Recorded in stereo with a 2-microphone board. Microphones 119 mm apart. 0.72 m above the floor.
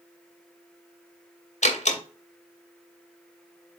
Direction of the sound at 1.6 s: 75° left (ahead or behind).